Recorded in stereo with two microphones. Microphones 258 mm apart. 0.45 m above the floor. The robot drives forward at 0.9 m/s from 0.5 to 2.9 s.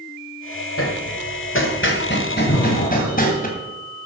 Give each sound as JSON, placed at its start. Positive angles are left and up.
{"t": 0.8, "sound": "hammering", "side_deg": 60, "distance_m": 1.6}
{"t": 2.5, "sound": "breathing", "side_deg": 55, "distance_m": 1.7}